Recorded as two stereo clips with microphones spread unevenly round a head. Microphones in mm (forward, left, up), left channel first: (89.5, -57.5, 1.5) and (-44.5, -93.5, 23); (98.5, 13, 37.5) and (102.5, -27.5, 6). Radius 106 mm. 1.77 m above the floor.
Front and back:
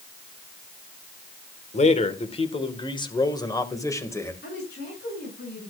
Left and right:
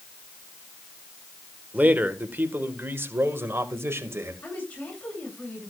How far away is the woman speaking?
About 8.5 m.